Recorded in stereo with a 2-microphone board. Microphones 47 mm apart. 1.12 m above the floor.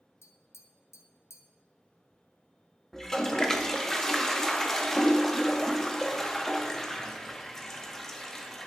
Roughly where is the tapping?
Left.